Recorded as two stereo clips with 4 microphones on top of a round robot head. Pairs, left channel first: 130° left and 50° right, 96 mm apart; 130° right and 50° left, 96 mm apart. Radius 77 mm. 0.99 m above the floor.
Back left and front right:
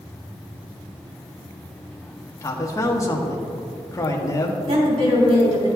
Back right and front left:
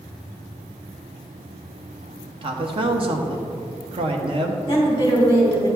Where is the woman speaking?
75° right, 3.5 m.